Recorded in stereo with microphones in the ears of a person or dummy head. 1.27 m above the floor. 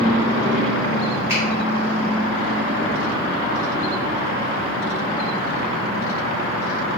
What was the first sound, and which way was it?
A finger snap, 10° right (ahead or behind).